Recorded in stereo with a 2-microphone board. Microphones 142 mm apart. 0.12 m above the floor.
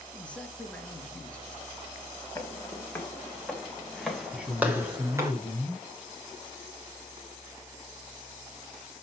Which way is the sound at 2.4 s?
20° left (ahead or behind).